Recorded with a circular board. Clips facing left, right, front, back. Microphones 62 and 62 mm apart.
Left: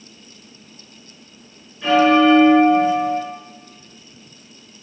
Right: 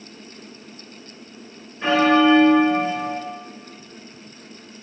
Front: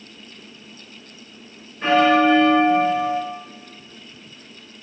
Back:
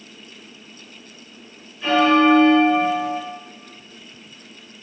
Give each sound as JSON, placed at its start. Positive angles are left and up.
{"t": 1.8, "sound": "a bell", "azimuth_deg": -45, "distance_m": 2.0}